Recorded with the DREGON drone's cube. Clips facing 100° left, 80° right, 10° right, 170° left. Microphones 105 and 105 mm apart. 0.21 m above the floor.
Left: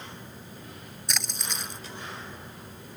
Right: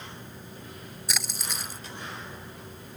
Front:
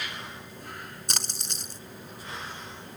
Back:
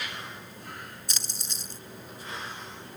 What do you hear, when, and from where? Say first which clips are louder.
1.1 s a splash: even, front 4 dB; 5° left